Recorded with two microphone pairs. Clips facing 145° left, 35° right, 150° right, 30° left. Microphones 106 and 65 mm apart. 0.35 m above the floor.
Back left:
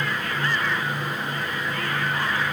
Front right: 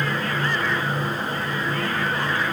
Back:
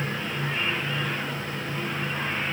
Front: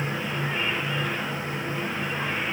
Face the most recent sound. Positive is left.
No sound to turn to.